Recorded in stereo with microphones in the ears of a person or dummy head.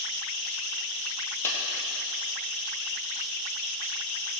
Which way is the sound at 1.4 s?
15° left (ahead or behind).